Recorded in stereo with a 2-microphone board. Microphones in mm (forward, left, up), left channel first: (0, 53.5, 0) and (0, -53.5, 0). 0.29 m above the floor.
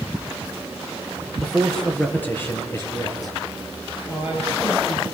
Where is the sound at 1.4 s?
Centre (ahead or behind), 4.5 m; by 3.4 s 35° left (ahead or behind), 5.5 m.